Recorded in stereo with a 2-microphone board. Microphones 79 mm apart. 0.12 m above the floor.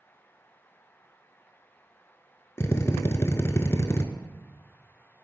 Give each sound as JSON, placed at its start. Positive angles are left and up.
{"t": 2.6, "sound": "a drill", "side_deg": 35, "distance_m": 0.5}